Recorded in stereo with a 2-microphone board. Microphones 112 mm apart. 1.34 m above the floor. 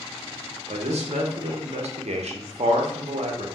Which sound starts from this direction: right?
A man speaking, at 0.7 s.